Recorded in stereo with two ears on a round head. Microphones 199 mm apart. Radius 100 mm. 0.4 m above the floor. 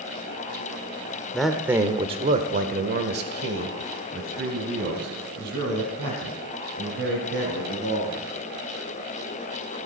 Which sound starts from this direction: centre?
A man speaking, at 1.3 s.